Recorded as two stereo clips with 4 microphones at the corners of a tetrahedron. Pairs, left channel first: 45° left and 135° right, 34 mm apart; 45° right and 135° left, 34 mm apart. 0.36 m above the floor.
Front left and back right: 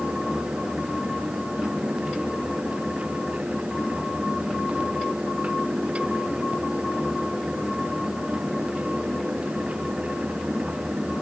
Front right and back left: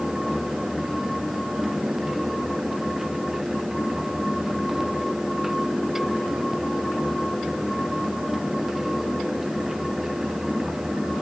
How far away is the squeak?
I don't hear a squeak.